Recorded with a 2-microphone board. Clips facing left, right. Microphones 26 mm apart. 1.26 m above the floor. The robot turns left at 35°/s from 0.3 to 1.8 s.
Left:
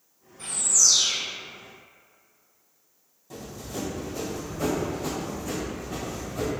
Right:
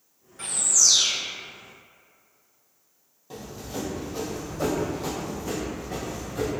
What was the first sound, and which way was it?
A bird, 75° right (ahead or behind).